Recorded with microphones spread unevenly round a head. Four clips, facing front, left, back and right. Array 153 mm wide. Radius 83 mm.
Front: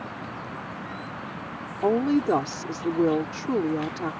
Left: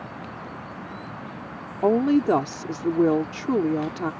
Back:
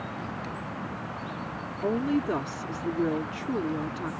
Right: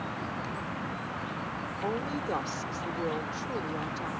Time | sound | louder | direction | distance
1.8 | a woman speaking | left 15 dB, front 5 dB | 75° left | ?